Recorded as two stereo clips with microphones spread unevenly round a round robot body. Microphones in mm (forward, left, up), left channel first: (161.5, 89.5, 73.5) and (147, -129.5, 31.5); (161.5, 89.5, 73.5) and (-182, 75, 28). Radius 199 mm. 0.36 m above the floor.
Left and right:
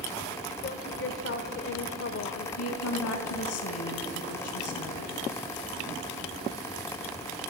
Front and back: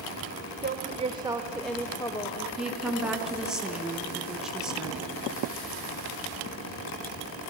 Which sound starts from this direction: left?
A woman speaking, at 2.6 s.